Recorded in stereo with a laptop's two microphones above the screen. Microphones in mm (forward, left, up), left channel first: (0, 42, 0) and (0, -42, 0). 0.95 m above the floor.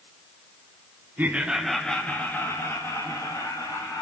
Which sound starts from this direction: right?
Laughter, at 1.2 s.